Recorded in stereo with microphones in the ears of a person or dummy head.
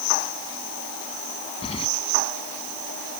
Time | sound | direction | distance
1.6 | keys jangling | 30° left (ahead or behind) | ?